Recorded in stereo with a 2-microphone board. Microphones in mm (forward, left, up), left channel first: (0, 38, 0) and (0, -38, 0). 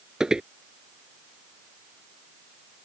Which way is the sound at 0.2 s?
10° right (ahead or behind).